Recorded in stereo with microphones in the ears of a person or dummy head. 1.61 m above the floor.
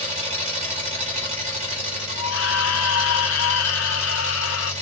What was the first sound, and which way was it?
An engine running, 35° right (ahead or behind).